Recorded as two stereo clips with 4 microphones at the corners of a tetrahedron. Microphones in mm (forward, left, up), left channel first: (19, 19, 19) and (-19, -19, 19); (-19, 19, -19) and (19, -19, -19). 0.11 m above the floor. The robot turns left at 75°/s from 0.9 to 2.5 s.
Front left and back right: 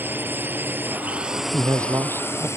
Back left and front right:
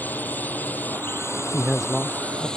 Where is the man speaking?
110° right; by 2.5 s 175° left.